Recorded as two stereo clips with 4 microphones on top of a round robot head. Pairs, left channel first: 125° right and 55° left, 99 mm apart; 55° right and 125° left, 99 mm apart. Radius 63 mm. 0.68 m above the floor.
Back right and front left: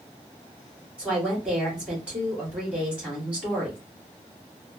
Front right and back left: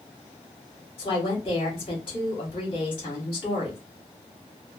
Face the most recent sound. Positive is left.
turn(degrees=-25)